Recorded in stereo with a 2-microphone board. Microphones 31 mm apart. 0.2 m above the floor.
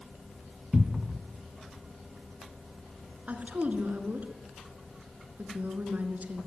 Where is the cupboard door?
20° right (ahead or behind), 1.5 m.